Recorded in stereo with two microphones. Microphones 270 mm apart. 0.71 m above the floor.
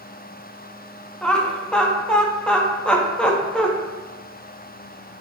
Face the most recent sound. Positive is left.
turn(degrees=5)  # may be behind; listen again after turning